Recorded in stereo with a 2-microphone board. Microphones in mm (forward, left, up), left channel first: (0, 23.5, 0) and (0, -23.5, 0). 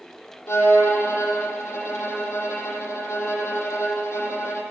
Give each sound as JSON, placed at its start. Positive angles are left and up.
{"t": 0.5, "sound": "a violin", "side_deg": 90, "distance_m": 7.0}